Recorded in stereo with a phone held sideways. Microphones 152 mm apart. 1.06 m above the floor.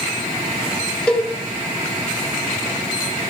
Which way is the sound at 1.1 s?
10° left (ahead or behind).